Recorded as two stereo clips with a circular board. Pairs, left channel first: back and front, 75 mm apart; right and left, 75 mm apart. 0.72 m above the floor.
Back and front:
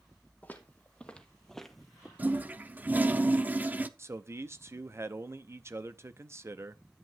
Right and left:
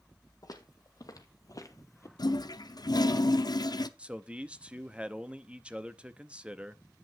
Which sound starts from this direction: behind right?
Footsteps, at 0.4 s.